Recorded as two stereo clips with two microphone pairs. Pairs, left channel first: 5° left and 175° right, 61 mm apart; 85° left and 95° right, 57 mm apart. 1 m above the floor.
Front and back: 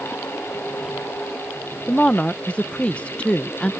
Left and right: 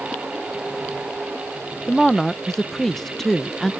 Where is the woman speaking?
15° left.